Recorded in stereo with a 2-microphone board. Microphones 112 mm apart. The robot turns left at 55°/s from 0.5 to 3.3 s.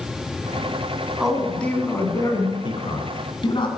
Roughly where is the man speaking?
Behind.